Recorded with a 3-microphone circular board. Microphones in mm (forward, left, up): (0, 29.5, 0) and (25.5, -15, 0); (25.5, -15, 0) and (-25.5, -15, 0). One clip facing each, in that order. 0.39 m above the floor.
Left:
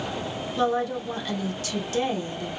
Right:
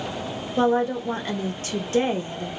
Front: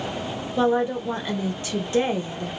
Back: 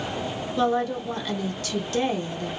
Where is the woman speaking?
50° right, 0.9 m.